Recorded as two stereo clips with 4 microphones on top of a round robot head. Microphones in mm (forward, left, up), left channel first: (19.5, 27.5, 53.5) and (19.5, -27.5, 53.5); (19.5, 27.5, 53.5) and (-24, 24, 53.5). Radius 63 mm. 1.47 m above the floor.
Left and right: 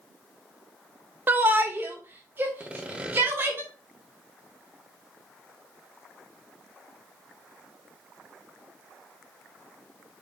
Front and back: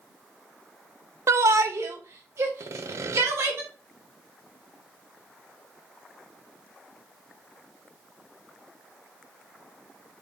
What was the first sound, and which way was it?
A shout, 150° right.